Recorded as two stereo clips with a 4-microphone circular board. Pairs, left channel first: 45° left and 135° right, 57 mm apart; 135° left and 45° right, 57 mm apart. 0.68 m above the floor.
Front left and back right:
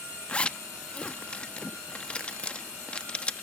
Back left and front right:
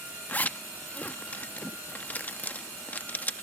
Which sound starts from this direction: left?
A zipper, at 0.3 s.